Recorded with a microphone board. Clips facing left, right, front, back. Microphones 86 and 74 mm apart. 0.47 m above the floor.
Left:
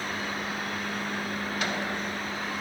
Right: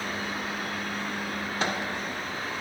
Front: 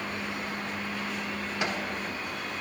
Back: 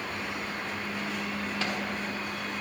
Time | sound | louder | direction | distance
1.6 | a microwave | right 3 dB, front 3 dB | 60° right | 1.2 m